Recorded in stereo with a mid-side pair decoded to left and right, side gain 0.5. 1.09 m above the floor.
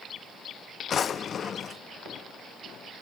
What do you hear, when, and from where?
0.9 s a drawer: 45° left, 0.7 m